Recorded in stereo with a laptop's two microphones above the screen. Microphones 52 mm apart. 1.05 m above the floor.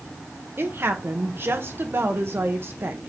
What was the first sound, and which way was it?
A woman speaking, 45° right (ahead or behind).